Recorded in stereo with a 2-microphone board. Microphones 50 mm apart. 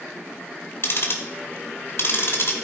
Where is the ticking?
55° left (ahead or behind), 1.9 m.